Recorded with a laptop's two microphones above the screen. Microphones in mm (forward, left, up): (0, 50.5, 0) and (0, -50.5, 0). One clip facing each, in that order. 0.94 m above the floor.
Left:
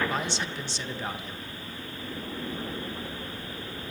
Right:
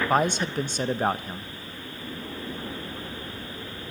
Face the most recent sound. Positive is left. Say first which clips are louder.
# right 8 dB
turn(degrees=-50)  # may be behind; listen again after turning